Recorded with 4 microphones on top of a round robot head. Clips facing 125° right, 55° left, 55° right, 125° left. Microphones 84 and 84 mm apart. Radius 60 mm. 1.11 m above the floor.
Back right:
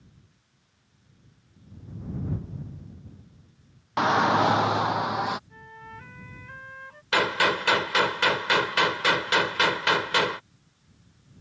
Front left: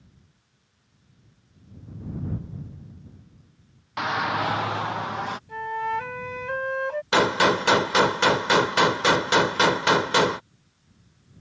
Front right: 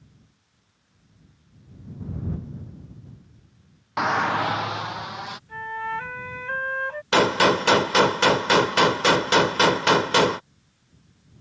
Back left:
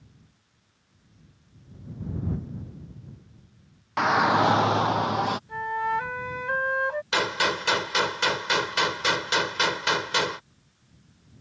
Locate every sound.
4.0 s a shout: 135° right; by 5.4 s 155° left
5.5 s a flute: 55° left
7.1 s a gunshot: 10° right